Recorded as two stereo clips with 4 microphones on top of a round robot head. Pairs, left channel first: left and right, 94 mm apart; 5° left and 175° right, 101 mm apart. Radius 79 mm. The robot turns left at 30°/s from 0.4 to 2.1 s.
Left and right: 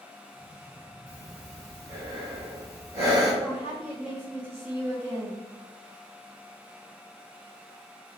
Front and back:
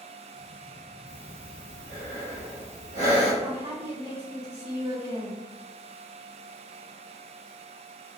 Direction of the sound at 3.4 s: 170° right.